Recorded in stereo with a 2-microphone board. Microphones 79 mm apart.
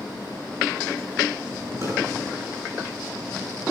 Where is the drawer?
40° right (ahead or behind), 8.5 m.